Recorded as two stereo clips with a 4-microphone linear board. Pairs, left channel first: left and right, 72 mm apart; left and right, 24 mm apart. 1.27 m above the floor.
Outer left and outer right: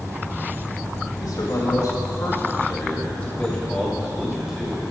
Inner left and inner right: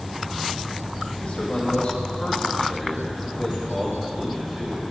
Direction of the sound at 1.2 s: 65° left (ahead or behind).